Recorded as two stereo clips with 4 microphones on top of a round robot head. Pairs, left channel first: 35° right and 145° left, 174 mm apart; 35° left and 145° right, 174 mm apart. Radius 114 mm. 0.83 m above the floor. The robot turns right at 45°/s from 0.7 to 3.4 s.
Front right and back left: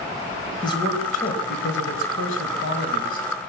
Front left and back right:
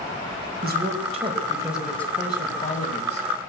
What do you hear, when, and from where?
0.6 s a man speaking: 105° right, 4.5 m; by 3.3 s 10° left, 4.5 m